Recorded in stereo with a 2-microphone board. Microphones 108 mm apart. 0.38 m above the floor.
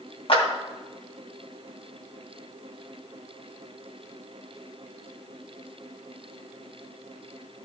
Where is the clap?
60° left (ahead or behind), 2.5 m.